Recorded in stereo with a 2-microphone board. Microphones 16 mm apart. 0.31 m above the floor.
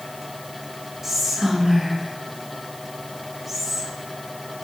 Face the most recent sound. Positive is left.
turn(degrees=-10)  # may be behind; listen again after turning